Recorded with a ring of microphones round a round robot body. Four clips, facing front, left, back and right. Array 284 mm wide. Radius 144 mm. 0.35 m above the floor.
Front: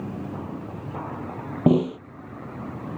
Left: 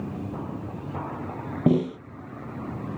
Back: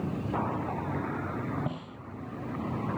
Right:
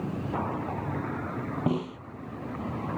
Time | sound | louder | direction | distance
1.7 | a snare drum | left 9 dB, front 18 dB | 25° left | ?